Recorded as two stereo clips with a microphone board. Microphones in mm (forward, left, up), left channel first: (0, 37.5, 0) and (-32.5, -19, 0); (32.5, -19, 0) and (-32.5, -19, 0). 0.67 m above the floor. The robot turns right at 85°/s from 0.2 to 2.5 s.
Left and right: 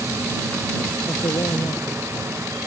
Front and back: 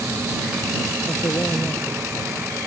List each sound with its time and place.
1.1 s a man speaking: 25° left; by 2.7 s 145° left